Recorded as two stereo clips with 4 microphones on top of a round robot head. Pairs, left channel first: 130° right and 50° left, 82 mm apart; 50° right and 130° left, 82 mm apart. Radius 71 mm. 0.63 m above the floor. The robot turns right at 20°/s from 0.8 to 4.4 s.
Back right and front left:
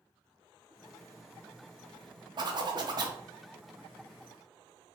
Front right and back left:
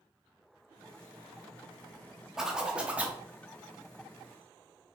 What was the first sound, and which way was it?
A zipper, 50° left.